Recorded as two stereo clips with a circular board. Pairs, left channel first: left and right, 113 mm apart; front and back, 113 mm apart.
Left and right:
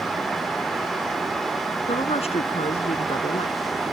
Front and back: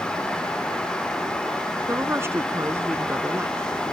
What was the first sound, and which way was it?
A woman speaking, 110° left.